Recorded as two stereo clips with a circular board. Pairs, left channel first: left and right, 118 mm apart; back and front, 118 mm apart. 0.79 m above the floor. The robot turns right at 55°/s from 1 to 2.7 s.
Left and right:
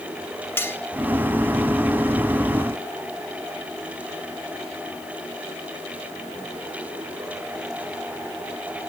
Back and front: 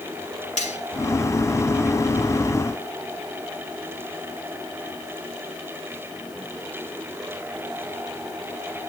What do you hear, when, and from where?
0.6 s cutlery clinking: 160° left, 2 m